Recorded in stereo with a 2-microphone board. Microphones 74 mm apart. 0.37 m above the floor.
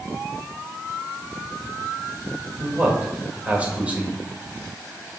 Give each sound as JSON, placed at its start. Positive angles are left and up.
{"t": 2.6, "sound": "a man speaking", "side_deg": -20, "distance_m": 1.7}